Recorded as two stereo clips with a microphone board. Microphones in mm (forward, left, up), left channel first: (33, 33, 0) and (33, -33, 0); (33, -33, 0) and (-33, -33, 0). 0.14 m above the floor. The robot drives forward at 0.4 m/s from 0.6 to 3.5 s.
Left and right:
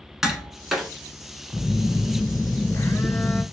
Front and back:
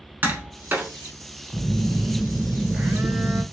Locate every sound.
0.2 s tapping: 165° right, 1.0 m; by 0.9 s 170° right, 1.1 m
1.5 s a phone buzzing: 50° left, 0.6 m; by 3.4 s 135° left, 0.6 m